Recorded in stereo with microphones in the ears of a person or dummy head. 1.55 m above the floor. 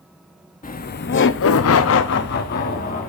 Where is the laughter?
30° left (ahead or behind), 0.8 m; by 3.1 s 40° left (ahead or behind), 1.3 m.